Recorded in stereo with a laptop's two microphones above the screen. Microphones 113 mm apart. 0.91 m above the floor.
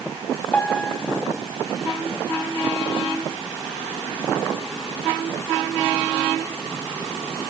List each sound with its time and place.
0.5 s a piano: 10° left (ahead or behind), 1.7 m